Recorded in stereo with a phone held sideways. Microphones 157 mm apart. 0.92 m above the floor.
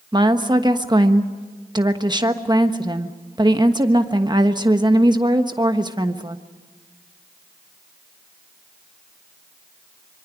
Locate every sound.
0.1 s a woman speaking: 30° right (ahead or behind), 1.3 m